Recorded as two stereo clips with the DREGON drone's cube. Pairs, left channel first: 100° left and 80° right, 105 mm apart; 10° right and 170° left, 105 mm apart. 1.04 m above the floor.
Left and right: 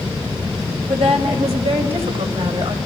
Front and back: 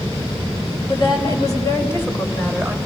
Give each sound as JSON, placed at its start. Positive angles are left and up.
{"t": 0.9, "sound": "a woman speaking", "azimuth_deg": -55, "distance_m": 4.0}